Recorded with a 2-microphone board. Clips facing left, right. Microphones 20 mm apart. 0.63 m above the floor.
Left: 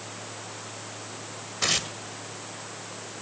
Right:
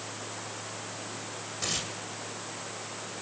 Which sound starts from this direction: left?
Tearing paper, at 1.6 s.